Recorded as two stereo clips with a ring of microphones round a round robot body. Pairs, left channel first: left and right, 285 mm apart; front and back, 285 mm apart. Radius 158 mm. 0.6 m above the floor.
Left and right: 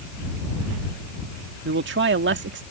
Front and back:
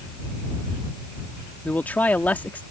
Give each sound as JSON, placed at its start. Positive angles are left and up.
{"t": 1.6, "sound": "a man speaking", "azimuth_deg": -80}